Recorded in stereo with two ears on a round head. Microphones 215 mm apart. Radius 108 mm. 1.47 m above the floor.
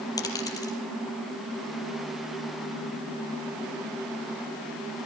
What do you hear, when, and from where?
0.2 s a dropped coin: 15° left (ahead or behind), 5.5 m